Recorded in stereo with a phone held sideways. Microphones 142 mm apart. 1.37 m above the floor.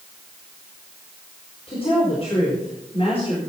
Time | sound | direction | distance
1.7 | a woman speaking | 40° left (ahead or behind) | 4.5 m